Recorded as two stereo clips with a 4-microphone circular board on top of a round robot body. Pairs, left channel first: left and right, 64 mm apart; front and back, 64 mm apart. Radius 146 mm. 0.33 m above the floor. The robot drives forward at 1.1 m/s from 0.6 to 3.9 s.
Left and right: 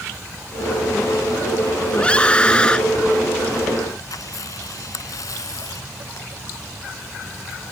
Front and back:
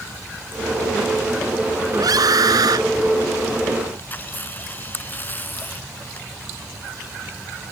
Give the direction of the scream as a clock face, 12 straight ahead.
7 o'clock.